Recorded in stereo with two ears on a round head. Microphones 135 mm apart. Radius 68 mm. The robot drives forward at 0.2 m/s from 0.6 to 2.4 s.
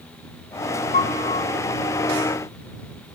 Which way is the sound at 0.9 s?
50° left (ahead or behind).